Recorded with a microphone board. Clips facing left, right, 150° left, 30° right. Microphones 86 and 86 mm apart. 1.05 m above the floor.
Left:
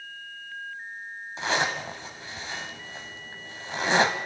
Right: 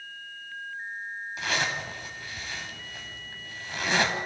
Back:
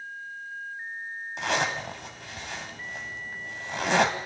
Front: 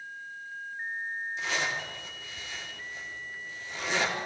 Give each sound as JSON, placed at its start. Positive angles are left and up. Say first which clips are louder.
{"t": 1.4, "sound": "a zipper", "louder": "left 4 dB, back 6 dB", "azimuth_deg": 150, "distance_m": 2.5}